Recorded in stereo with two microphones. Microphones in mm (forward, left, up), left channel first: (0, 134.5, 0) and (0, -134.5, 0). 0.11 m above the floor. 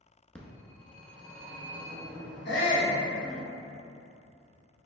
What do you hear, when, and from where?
0.3 s a phone ringing: 5° left (ahead or behind), 0.6 m
2.5 s a shout: 40° left (ahead or behind), 1.6 m